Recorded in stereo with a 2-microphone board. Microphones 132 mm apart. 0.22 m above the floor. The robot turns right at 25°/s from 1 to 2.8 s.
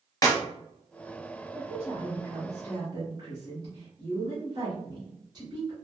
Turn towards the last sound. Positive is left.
turn(degrees=-140)